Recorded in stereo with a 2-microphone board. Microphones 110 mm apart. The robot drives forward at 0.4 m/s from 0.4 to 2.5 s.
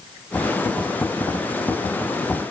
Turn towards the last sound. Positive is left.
No sound to turn to.